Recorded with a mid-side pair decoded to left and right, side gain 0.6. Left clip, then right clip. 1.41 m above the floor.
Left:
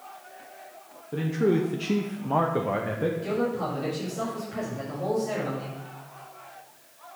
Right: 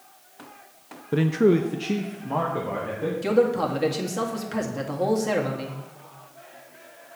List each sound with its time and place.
1.1 s a man speaking: 50° right, 0.6 m; by 3.1 s 35° left, 1.4 m
3.2 s a man speaking: 55° right, 1.9 m